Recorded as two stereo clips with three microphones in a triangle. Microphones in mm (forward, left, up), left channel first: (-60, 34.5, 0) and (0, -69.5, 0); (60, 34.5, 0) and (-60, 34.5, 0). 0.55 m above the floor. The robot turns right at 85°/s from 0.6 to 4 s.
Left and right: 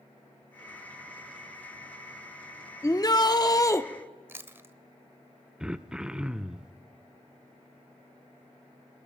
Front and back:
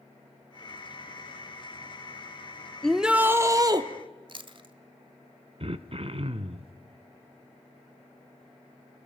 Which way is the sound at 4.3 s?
135° right.